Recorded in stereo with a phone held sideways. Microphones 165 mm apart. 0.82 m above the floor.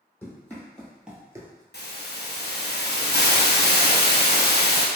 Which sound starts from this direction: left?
A hiss, at 1.7 s.